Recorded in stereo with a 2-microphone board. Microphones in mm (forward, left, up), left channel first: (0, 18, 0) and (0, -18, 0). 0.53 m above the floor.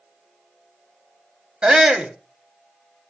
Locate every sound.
1.6 s a shout: 25° right (ahead or behind), 1.1 m